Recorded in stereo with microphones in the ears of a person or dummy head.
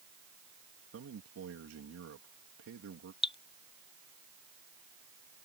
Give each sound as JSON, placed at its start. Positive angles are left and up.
{"t": 0.9, "sound": "a man speaking", "side_deg": -80}
{"t": 3.2, "sound": "dripping", "side_deg": 35}